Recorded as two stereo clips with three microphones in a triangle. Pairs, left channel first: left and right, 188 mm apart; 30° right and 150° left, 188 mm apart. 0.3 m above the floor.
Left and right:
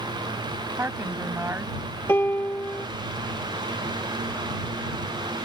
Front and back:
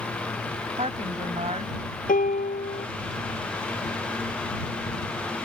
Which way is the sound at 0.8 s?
165° right.